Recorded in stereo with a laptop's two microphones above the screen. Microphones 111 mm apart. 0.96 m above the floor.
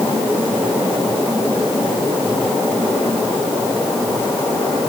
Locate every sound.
Only background noise.